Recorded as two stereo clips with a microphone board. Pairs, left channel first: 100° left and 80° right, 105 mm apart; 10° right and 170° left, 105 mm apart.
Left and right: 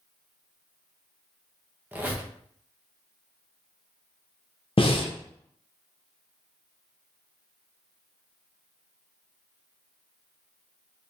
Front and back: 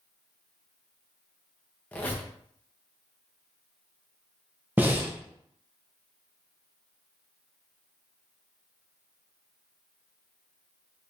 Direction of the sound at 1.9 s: 45° right.